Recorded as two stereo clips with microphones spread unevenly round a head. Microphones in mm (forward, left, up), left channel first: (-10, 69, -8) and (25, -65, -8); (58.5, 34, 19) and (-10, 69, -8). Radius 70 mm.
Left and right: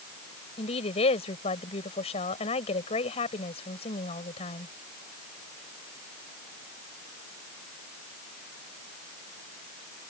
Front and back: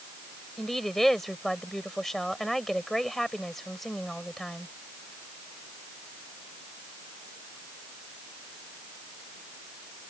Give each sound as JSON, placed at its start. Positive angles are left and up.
{"t": 0.6, "sound": "a woman speaking", "azimuth_deg": 55}